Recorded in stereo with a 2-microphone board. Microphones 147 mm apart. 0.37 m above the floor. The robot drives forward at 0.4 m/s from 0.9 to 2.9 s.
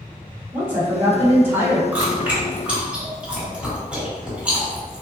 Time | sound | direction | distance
0.5 | a woman speaking | 15° right (ahead or behind) | 0.8 m
1.9 | chewing | 10° right (ahead or behind) | 1.9 m